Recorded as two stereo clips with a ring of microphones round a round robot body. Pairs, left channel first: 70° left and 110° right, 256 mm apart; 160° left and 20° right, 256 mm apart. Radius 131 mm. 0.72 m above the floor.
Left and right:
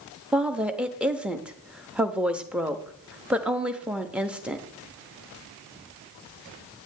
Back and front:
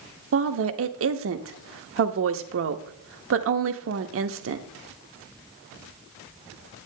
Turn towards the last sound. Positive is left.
turn(degrees=-30)